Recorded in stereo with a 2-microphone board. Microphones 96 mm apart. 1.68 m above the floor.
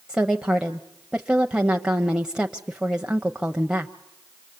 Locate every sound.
0.1 s a woman speaking: 10° right (ahead or behind), 0.8 m